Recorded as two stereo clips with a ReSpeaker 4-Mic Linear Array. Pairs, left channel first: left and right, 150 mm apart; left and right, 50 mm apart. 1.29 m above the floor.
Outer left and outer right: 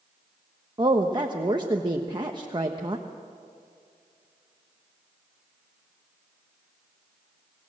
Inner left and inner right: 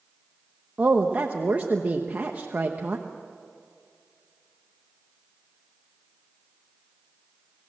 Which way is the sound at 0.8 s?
30° right (ahead or behind).